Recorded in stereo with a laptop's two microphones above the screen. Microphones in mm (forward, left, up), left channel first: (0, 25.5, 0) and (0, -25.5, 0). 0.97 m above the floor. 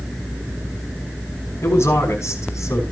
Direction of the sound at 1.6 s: 60° left (ahead or behind).